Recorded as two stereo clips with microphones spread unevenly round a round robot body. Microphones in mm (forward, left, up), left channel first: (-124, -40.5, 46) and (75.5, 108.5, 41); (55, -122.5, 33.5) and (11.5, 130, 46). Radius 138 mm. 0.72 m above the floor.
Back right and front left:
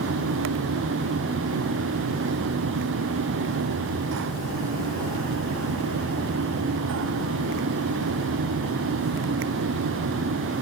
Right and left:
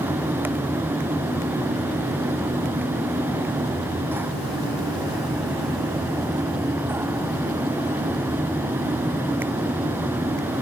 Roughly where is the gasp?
No gasp in this recording.